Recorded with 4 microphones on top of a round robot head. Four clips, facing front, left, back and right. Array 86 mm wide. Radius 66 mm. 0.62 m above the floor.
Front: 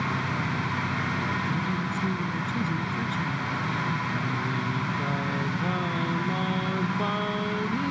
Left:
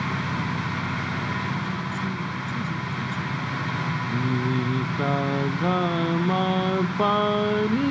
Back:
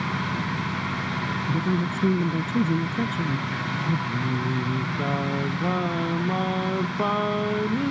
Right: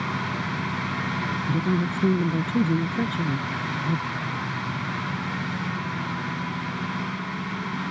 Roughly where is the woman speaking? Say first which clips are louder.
Right 4 dB, back 3 dB; behind right.